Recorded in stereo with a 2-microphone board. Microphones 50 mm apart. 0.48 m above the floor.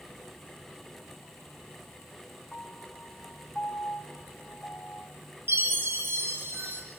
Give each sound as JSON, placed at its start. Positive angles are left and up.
{"t": 2.5, "sound": "a piano", "side_deg": 25, "distance_m": 1.3}
{"t": 5.5, "sound": "a chime", "side_deg": -50, "distance_m": 4.5}